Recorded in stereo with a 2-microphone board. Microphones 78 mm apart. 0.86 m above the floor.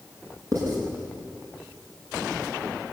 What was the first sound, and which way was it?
Writing, 50° right (ahead or behind).